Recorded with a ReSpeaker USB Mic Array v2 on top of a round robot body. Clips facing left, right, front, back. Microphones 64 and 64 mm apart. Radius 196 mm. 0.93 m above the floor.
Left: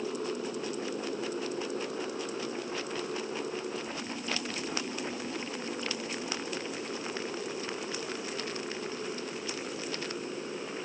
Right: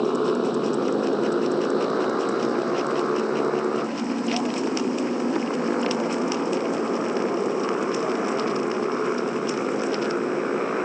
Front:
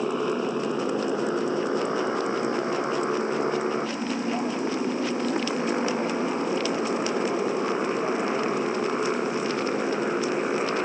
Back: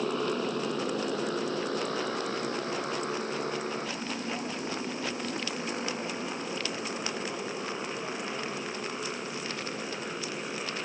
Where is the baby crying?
No baby crying in this recording.